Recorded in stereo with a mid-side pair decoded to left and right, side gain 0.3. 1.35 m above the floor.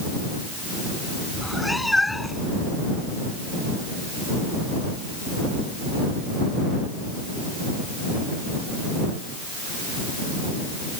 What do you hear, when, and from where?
1.3 s a cat meowing: 20° left